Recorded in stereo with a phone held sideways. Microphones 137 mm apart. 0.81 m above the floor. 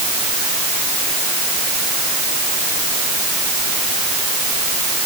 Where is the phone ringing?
No phone ringing in this recording.